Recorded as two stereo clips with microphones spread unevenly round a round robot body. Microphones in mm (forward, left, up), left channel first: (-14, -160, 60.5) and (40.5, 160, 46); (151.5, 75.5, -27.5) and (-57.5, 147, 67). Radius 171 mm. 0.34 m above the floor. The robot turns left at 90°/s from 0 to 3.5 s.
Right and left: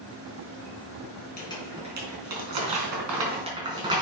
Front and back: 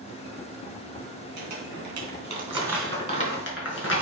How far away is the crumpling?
About 3.5 m.